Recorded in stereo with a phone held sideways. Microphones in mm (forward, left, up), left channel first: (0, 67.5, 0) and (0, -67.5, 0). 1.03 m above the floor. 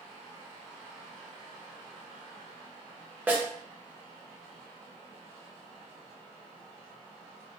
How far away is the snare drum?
About 0.6 m.